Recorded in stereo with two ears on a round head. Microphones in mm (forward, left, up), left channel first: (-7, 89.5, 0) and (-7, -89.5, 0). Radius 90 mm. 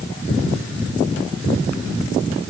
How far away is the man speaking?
No man speaking in this recording.